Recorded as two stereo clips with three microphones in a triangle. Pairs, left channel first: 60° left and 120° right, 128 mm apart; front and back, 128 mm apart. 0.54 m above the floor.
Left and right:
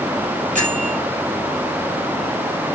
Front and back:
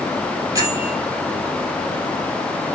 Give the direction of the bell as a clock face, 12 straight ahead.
4 o'clock.